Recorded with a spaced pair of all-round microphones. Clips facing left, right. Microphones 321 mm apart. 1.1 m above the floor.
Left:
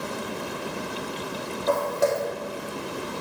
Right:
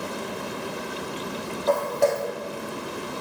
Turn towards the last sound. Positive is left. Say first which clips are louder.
# right 1 dB
turn(degrees=10)  # may be behind; listen again after turning